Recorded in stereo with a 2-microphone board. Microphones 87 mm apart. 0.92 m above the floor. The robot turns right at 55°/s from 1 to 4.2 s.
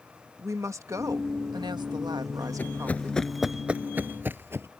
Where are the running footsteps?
20° left (ahead or behind); by 4.7 s 30° right (ahead or behind).